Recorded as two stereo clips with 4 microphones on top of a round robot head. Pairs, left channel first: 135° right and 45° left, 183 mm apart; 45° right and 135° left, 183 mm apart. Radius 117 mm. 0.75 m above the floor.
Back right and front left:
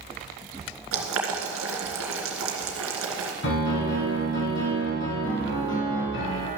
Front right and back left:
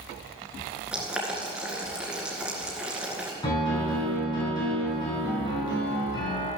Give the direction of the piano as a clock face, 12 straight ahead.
4 o'clock.